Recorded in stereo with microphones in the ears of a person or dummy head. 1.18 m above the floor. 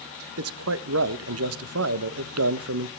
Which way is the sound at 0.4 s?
85° right.